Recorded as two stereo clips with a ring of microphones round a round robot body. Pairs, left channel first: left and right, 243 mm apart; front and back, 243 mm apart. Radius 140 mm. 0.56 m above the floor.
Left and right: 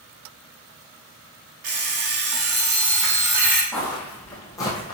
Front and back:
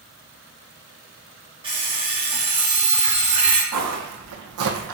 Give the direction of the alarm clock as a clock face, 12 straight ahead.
4 o'clock.